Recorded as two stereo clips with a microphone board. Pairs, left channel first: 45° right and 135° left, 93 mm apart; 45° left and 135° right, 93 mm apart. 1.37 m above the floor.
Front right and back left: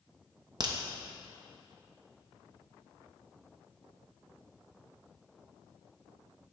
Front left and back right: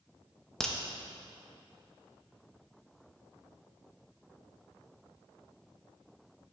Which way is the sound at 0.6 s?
130° left.